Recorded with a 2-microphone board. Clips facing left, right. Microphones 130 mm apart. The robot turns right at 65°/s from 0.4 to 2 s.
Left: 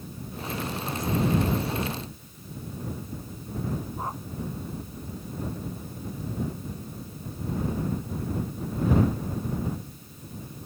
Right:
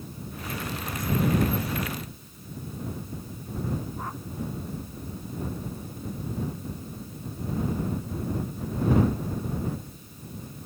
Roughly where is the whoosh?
Left.